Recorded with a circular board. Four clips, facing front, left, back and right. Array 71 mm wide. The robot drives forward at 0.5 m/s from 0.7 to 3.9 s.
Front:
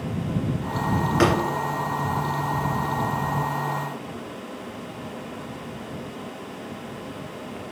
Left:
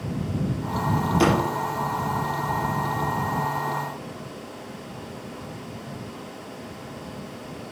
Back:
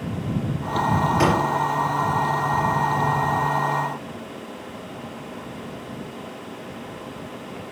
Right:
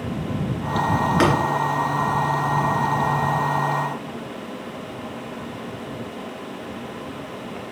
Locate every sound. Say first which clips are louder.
1.2 s tapping: right 1 dB, front 1 dB; 65° right, 2.5 m